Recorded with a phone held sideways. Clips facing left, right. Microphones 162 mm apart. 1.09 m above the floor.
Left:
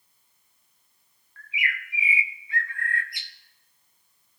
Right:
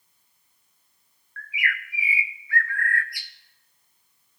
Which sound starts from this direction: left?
A bird, at 1.4 s.